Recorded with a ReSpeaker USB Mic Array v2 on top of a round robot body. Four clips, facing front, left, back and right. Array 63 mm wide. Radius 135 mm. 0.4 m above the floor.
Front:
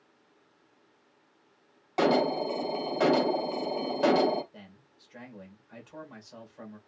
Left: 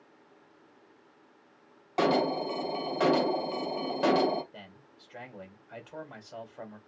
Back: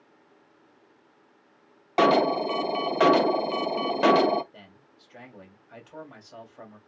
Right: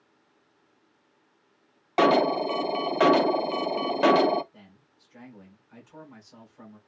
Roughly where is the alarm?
Behind right.